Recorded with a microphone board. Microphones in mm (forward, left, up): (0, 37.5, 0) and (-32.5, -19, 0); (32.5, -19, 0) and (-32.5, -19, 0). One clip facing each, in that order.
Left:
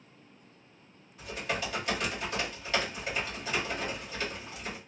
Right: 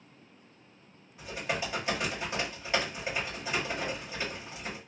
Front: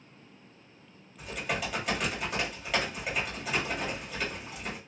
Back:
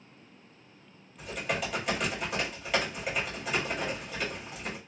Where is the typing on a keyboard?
90° right, 1.6 m.